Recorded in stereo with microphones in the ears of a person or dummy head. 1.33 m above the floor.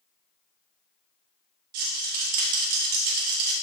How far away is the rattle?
About 1.8 m.